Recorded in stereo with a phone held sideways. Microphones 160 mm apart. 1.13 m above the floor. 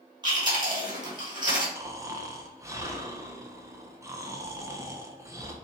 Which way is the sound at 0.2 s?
25° right (ahead or behind).